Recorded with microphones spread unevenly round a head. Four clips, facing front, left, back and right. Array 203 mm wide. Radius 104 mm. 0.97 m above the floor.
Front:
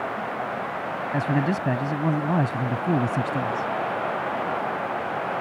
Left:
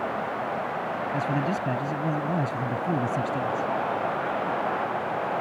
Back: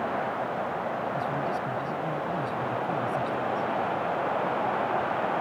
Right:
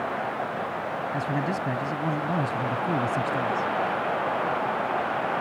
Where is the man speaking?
5° left.